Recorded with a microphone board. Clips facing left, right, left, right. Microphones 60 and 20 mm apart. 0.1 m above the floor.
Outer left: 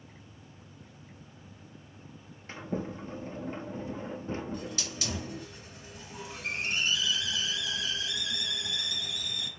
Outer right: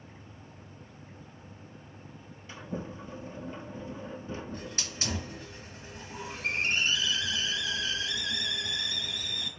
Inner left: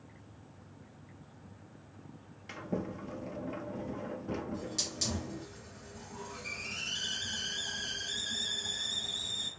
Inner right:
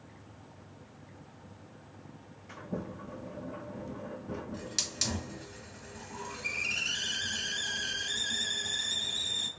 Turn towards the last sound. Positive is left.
turn(degrees=-35)  # may be behind; listen again after turning